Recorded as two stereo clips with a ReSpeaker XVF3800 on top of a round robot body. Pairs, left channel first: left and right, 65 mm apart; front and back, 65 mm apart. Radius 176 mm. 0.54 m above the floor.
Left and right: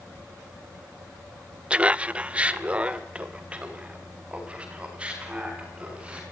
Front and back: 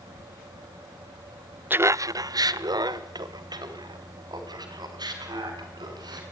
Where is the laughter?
145° right, 0.6 m; by 6.2 s 165° right, 6.5 m.